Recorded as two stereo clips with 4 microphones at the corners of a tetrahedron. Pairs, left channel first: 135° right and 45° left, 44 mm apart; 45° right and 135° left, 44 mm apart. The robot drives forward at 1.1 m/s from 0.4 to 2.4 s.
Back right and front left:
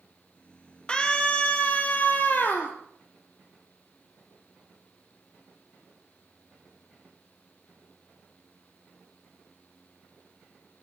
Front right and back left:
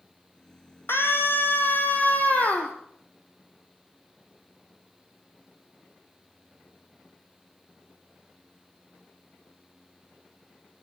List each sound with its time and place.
0.9 s a scream: 70° right, 4 m; by 2.7 s 95° right, 3.5 m